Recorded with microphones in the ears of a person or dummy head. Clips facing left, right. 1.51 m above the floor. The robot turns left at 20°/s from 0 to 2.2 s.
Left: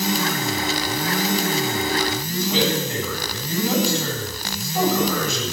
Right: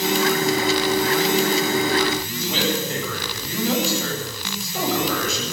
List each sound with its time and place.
2.2 s a man speaking: 60° right (ahead or behind), 8 m